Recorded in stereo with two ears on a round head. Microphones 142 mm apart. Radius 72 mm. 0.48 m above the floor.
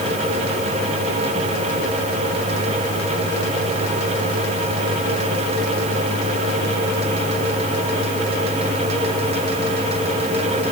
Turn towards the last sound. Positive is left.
No sound to turn to.